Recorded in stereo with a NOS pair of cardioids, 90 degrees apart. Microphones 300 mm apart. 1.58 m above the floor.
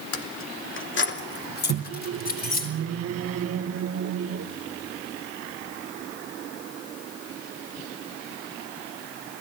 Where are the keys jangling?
50° left, 2 m; by 2.7 s 30° left, 5 m.